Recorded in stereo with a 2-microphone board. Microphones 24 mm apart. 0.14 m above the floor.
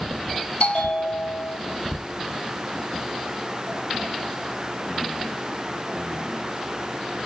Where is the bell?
60° left (ahead or behind), 4.5 m.